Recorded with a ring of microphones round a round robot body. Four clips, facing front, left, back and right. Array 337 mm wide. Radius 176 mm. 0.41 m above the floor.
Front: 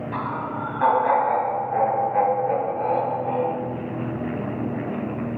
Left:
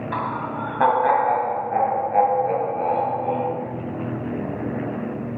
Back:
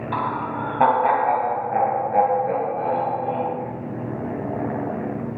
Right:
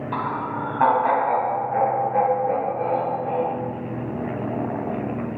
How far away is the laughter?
About 3 m.